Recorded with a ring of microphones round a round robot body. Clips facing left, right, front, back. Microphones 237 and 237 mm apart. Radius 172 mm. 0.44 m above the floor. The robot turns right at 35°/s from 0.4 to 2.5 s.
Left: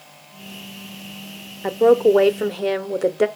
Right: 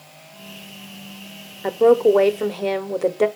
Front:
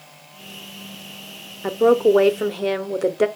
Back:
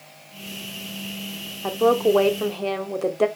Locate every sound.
1.6 s a woman speaking: straight ahead, 0.9 m; by 3.3 s 30° left, 0.9 m